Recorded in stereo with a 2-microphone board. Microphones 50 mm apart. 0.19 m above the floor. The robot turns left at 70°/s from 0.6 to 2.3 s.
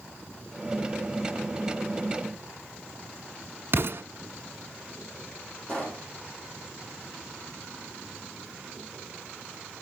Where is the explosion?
55° right (ahead or behind), 1.3 m.